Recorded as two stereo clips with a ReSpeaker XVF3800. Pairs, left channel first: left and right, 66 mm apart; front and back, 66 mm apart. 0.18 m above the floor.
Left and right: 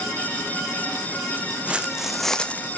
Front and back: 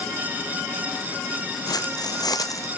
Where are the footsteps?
15° right, 0.9 m; by 2.7 s 30° left, 0.6 m.